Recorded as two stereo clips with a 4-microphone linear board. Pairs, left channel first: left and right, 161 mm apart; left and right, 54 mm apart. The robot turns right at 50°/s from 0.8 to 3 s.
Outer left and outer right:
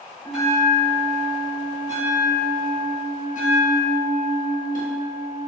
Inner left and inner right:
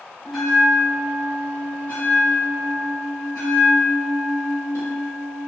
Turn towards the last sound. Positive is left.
turn(degrees=105)